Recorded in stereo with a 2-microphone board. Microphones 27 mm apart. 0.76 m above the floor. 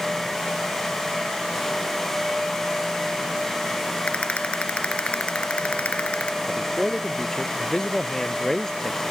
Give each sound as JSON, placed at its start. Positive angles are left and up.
{"t": 4.1, "sound": "a rattle", "side_deg": 50}
{"t": 6.5, "sound": "a man speaking", "side_deg": 20}